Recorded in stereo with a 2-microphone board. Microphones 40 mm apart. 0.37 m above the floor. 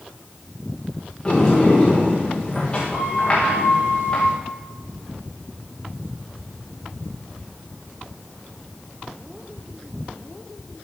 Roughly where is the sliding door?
Centre.